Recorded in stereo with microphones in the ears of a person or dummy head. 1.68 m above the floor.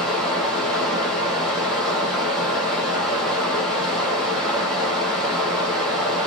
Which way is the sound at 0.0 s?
5° left (ahead or behind).